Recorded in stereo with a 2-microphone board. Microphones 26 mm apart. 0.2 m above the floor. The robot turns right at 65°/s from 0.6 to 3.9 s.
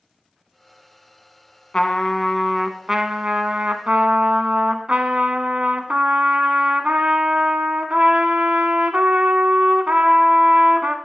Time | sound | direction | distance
1.7 | a trumpet | 135° left | 0.7 m